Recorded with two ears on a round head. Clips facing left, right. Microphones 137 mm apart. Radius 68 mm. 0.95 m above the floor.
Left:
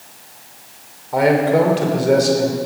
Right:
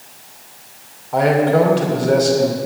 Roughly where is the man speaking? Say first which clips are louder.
Even; centre.